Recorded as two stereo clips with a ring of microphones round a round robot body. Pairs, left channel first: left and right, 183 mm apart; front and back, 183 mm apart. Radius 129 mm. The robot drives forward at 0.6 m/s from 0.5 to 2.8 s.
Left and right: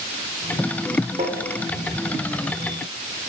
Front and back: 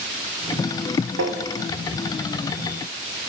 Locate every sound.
1.2 s tapping: 160° right, 0.9 m